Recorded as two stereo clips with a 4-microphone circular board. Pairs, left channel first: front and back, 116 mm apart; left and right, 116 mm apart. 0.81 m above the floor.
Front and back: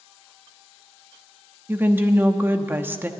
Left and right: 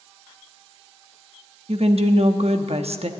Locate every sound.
1.7 s a woman speaking: 110° right, 0.9 m